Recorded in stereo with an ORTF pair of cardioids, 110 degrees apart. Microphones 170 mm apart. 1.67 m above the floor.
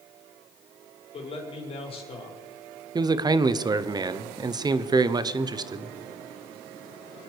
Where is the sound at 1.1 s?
35° left, 5 m.